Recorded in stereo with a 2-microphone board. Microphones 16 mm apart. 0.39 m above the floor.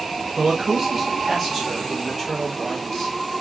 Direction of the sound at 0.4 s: 35° right (ahead or behind).